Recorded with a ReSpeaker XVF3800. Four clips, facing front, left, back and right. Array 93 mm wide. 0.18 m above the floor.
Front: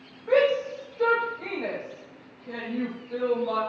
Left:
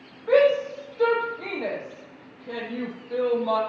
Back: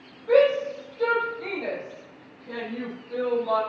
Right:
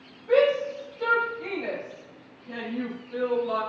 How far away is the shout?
About 8 m.